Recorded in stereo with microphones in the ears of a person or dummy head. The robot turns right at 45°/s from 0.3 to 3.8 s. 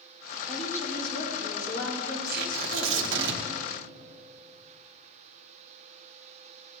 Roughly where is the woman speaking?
Ahead.